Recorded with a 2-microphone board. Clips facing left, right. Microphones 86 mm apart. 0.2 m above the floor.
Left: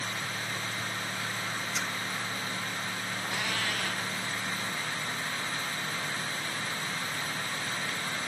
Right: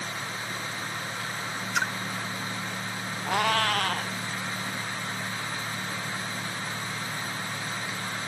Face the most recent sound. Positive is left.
turn(degrees=-60)  # may be behind; listen again after turning